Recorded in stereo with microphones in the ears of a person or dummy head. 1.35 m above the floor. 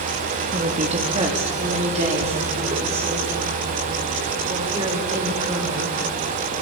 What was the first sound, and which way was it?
A woman speaking, 35° right (ahead or behind).